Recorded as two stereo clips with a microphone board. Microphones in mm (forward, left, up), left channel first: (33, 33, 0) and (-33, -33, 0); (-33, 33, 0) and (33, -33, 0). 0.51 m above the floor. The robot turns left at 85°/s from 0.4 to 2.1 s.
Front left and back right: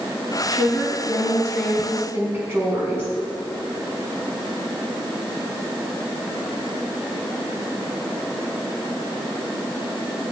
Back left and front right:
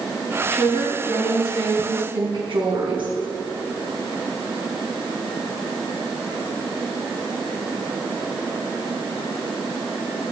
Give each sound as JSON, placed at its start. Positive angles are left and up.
{"t": 0.5, "sound": "a woman speaking", "azimuth_deg": 65, "distance_m": 5.0}